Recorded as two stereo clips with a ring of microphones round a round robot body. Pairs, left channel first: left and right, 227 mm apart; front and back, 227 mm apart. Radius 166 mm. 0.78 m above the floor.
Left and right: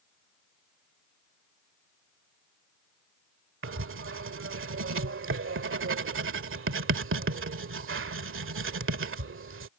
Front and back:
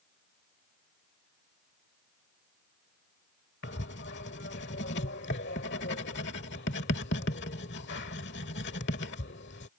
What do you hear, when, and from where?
3.6 s writing: 60° right